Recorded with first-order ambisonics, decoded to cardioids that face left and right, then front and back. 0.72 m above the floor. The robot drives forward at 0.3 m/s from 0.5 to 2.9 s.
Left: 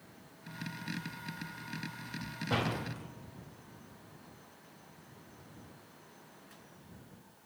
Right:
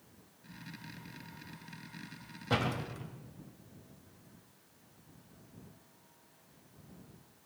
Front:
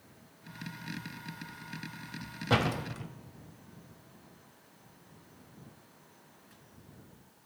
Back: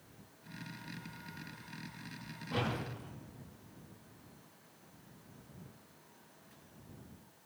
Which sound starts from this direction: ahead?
A door slam, at 2.5 s.